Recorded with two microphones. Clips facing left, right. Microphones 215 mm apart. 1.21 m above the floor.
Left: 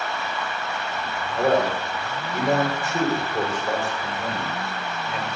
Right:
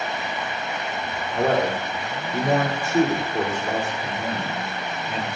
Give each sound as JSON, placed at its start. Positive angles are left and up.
{"t": 1.3, "sound": "a man speaking", "side_deg": -60, "distance_m": 3.5}